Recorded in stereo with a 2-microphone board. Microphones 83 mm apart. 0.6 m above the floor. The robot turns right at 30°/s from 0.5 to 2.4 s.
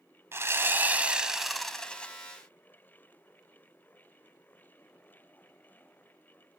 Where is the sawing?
30° right, 0.9 m; by 2.1 s 20° left, 0.9 m.